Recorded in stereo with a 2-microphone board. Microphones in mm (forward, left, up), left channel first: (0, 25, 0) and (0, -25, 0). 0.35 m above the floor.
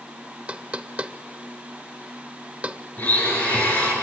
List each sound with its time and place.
0.5 s knocking: 25° right (ahead or behind), 0.6 m
3.0 s a blender: 30° left (ahead or behind), 5 m